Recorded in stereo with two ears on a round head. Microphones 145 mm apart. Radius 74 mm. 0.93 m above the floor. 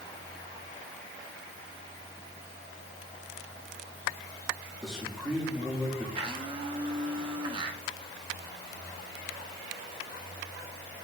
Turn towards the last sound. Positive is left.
turn(degrees=-30)  # may be behind; listen again after turning